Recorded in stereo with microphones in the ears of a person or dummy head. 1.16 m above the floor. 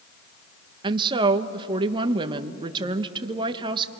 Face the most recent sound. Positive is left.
turn(degrees=-30)  # may be behind; listen again after turning